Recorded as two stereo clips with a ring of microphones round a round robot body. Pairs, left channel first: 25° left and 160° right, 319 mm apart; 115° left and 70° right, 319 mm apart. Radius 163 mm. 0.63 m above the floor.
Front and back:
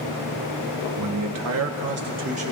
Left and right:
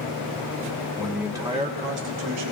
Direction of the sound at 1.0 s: 160° right.